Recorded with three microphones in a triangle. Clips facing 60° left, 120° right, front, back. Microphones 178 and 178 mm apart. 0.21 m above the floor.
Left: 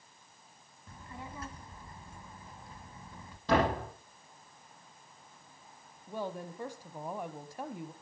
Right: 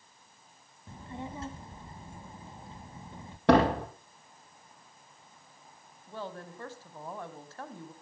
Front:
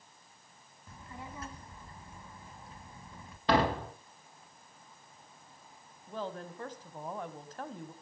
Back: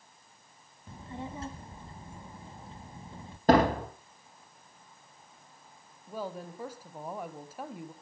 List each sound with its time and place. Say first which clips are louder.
0.9 s a child speaking: right 6 dB, back 6 dB; 150° right, 0.8 m
3.5 s a door slam: right 6 dB, back 5 dB; 135° right, 5 m
6.1 s a woman speaking: left 3 dB, back 1 dB; 115° left, 1.1 m